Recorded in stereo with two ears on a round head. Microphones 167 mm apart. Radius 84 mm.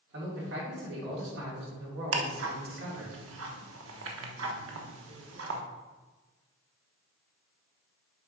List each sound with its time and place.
0.1 s a man speaking: 70° right (ahead or behind), 3 m
2.1 s ticking: 75° right (ahead or behind), 1.1 m